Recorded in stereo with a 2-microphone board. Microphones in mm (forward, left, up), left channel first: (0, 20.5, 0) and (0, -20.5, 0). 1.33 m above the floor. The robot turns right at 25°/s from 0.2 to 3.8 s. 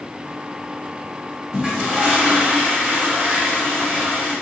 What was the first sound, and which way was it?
A toilet flushing, 160° right.